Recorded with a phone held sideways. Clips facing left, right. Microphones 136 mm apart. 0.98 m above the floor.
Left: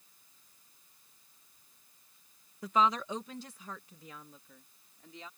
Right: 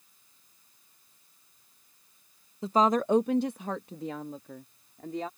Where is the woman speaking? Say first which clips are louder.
Right 5 dB; 25° right (ahead or behind); by 5.3 s 65° right (ahead or behind).